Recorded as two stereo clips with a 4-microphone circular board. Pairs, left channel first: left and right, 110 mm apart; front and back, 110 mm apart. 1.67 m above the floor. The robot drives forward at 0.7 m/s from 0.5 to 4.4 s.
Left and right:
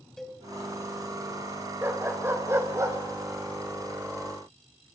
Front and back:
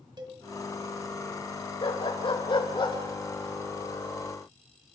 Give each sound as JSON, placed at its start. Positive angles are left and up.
{"t": 0.2, "sound": "a cowbell", "azimuth_deg": 175, "distance_m": 1.9}
{"t": 1.8, "sound": "a dog barking", "azimuth_deg": -25, "distance_m": 2.5}